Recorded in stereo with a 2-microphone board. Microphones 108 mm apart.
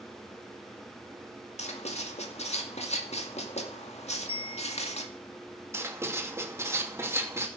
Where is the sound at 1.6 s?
75° left (ahead or behind), 2 m.